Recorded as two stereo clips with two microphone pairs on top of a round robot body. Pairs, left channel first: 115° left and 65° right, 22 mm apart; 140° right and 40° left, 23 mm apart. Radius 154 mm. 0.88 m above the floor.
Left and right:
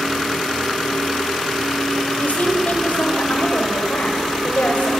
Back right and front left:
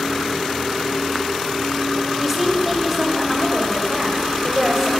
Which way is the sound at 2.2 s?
120° left.